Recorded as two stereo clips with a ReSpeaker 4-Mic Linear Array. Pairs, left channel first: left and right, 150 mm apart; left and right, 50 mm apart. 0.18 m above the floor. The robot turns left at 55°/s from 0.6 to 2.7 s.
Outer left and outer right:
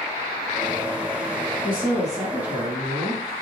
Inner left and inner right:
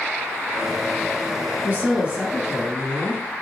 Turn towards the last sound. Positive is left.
turn(degrees=-175)